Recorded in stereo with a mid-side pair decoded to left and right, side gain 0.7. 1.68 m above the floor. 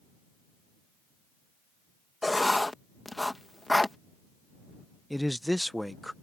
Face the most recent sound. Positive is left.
turn(degrees=5)